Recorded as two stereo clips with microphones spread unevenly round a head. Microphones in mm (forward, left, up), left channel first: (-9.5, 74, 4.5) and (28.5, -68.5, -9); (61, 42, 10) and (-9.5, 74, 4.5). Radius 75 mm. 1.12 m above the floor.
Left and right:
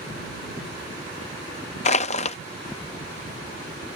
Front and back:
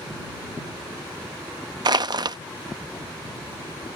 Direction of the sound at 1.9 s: 135° left.